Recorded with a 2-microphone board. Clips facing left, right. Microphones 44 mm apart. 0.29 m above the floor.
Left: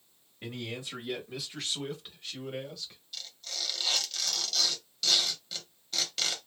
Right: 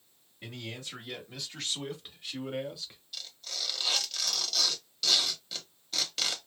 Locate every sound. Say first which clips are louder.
0.4 s a man speaking: left 3 dB; 25° left (ahead or behind), 1.2 m; by 3.0 s 15° right (ahead or behind), 1.4 m
3.1 s tearing paper: even; centre (ahead or behind), 0.9 m